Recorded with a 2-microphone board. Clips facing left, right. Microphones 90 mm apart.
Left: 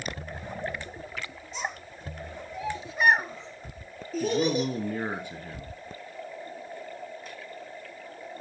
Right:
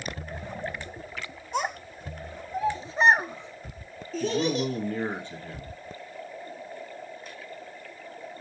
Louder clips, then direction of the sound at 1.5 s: Right 7 dB; 60° right (ahead or behind).